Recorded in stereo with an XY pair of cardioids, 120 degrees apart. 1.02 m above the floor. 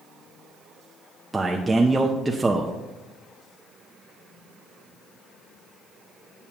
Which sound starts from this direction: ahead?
A man speaking, at 1.3 s.